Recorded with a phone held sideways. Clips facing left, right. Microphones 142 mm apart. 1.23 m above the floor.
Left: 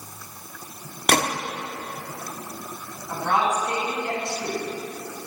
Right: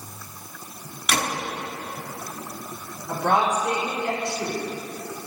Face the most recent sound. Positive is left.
turn(degrees=-70)  # may be behind; listen again after turning